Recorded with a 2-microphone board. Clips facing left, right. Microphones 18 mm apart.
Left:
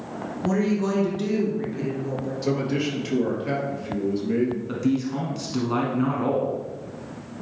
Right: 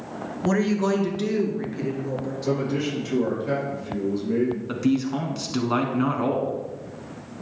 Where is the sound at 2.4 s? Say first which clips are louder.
Left 1 dB; 35° left (ahead or behind), 3.5 m.